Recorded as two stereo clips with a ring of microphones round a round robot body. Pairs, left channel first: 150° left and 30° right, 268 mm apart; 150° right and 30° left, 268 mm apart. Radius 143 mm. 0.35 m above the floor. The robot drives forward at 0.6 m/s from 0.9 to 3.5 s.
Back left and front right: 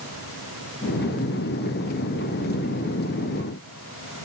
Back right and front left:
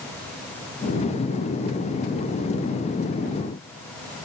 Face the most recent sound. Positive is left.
No sound to turn to.